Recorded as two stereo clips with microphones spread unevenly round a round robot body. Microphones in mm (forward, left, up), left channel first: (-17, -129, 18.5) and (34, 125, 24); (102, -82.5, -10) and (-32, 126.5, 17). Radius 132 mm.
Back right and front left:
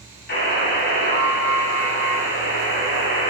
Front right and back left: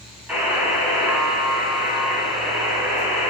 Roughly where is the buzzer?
Behind right.